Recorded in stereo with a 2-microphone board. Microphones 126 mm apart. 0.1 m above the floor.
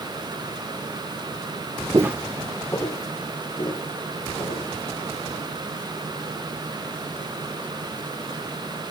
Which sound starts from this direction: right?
Footsteps, at 1.9 s.